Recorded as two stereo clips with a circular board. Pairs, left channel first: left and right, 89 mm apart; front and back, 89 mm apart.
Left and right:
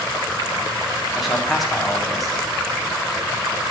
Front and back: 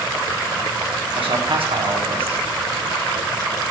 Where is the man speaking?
Straight behind, 1.5 m.